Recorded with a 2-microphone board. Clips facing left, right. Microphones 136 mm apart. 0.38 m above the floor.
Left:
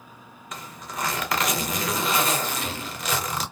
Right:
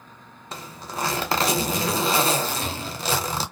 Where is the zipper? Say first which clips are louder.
Right 2 dB; 30° right (ahead or behind), 0.6 m.